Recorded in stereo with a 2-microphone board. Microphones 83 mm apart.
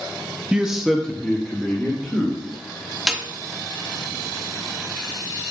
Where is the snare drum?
10° right (ahead or behind), 0.6 m.